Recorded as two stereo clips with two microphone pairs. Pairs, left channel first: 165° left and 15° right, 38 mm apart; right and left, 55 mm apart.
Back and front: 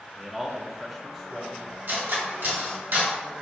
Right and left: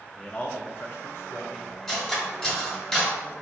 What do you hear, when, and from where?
0.2 s a man speaking: 50° right, 0.6 m; by 1.8 s 110° right, 1.2 m
1.9 s cutlery clinking: 10° right, 1.4 m